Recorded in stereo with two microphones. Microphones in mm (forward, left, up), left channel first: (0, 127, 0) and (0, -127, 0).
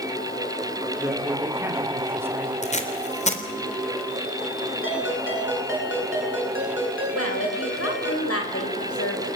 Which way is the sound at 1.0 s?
10° right (ahead or behind).